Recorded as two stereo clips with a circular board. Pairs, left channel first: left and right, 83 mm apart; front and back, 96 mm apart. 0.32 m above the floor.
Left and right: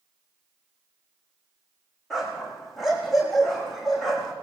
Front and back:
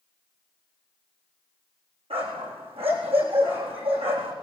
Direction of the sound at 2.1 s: Straight behind.